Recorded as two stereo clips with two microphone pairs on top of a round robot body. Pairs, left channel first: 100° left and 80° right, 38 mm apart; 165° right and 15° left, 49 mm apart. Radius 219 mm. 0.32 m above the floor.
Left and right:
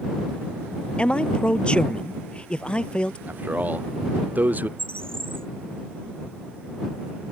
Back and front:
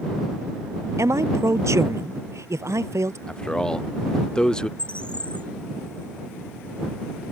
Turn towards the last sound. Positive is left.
turn(degrees=-100)